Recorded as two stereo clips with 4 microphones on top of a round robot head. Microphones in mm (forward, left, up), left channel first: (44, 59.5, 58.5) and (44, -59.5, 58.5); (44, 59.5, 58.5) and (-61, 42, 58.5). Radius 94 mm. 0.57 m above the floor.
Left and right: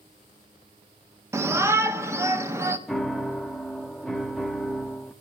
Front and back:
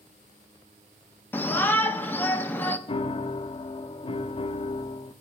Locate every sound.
1.3 s a shout: 45° right, 0.8 m
2.9 s a piano: 5° left, 0.9 m